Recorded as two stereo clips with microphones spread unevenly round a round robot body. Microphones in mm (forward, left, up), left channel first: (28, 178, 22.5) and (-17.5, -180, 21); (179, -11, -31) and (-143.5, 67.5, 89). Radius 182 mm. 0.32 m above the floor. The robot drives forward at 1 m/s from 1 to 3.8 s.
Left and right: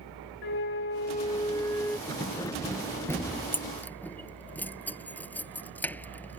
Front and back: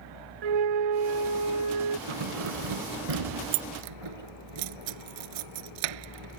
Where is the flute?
145° left; by 2.0 s 170° left.